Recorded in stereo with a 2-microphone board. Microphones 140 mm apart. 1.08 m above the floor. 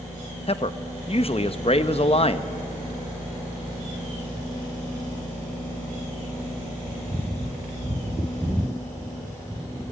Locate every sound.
0.5 s a man speaking: 45° left (ahead or behind), 0.9 m